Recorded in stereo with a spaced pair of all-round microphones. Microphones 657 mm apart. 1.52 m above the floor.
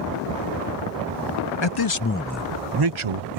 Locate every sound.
1.6 s a man speaking: 45° left (ahead or behind); by 3.4 s 65° right (ahead or behind)